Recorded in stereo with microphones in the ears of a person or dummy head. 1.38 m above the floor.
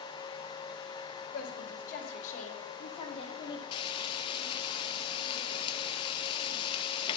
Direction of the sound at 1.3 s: 50° left (ahead or behind).